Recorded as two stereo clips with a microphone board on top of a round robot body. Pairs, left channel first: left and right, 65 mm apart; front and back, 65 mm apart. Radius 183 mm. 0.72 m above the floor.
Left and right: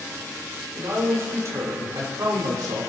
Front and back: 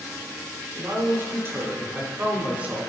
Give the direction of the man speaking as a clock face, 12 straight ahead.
5 o'clock.